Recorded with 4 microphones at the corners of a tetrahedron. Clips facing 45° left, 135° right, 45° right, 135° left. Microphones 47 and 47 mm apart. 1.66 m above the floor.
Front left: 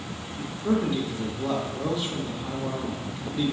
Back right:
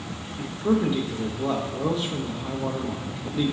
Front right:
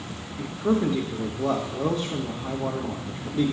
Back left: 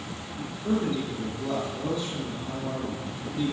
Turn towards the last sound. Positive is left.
turn(degrees=-65)